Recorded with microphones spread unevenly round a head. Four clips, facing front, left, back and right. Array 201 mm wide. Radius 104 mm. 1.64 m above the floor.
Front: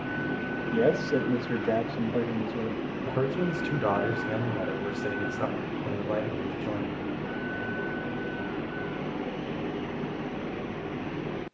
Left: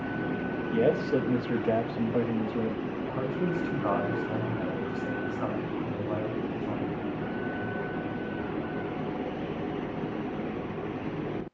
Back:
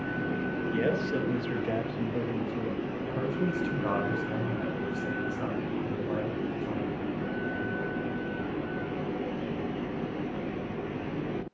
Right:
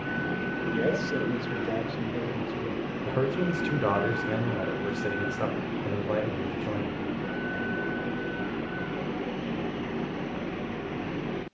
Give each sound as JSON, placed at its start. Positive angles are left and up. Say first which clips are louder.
{"t": 0.7, "sound": "a man speaking", "louder": "left 4 dB, front 6 dB", "azimuth_deg": 25, "distance_m": 2.5}
{"t": 3.0, "sound": "a man speaking", "louder": "right 4 dB, front 4 dB", "azimuth_deg": -40, "distance_m": 6.5}